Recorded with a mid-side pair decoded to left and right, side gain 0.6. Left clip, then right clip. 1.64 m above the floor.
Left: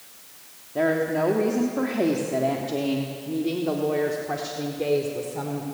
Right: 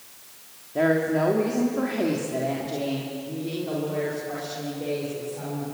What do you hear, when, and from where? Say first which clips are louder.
0.8 s a woman speaking: right 1 dB; 5° right, 3 m; by 5.6 s 55° left, 4.5 m